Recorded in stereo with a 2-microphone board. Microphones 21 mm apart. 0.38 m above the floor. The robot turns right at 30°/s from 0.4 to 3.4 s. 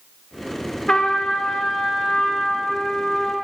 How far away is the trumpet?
About 1.0 m.